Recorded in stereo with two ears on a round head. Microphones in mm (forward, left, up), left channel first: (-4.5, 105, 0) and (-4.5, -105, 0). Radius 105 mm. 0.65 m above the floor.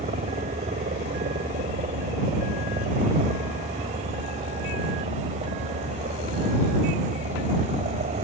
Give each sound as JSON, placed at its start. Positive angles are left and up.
{"t": 0.0, "sound": "a helicopter", "side_deg": -30}